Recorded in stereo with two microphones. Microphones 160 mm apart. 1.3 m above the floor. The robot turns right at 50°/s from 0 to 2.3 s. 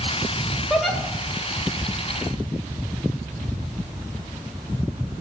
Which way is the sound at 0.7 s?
5° right (ahead or behind).